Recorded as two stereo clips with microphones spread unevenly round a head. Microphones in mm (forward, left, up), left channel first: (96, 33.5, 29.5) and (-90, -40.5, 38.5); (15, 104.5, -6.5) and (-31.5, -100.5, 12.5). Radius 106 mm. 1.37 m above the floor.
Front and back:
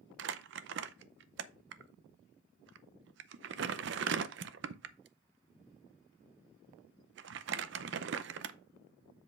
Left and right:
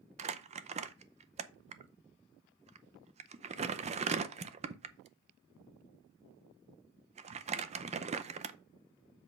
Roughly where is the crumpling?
Behind right.